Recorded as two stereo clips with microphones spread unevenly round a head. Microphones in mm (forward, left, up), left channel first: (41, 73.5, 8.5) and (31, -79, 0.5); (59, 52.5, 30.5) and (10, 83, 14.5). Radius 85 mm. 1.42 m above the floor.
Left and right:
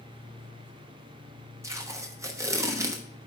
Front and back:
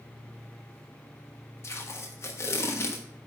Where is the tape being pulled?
25° right, 1.1 m.